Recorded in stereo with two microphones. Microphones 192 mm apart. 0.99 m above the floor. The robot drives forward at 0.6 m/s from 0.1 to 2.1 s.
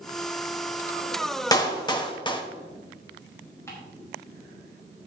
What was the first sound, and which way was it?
A clap, 20° left (ahead or behind).